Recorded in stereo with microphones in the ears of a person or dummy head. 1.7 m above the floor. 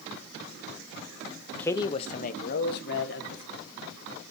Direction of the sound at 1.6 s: 10° left (ahead or behind).